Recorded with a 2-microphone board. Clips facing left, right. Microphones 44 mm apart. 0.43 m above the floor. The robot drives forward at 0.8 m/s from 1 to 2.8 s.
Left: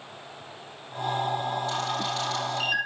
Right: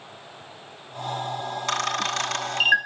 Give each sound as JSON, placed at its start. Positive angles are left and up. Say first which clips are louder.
{"t": 1.7, "sound": "a camera shutter", "louder": "right 3 dB", "side_deg": -75, "distance_m": 1.9}